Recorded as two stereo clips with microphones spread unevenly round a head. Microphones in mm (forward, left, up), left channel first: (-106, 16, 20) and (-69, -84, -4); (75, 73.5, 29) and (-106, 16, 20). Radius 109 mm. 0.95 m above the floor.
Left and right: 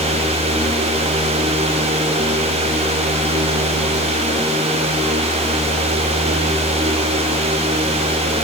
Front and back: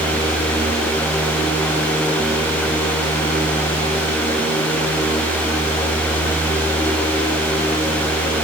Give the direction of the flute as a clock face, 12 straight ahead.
I don't hear a flute.